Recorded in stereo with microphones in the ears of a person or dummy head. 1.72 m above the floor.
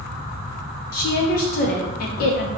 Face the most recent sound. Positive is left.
turn(degrees=50)  # may be behind; listen again after turning